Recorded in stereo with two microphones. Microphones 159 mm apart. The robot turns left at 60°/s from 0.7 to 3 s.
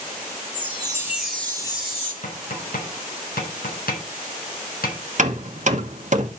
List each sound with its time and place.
0.5 s a chime: 145° right, 3.5 m; by 2.1 s 130° left, 3.5 m
2.2 s tapping: 55° left (ahead or behind), 7.5 m; by 5.0 s 80° left, 7.5 m
5.2 s hammering: 55° right (ahead or behind), 1.1 m